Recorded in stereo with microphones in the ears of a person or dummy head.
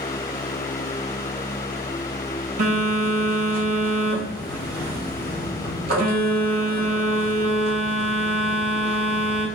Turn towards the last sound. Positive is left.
turn(degrees=-50)  # may be behind; listen again after turning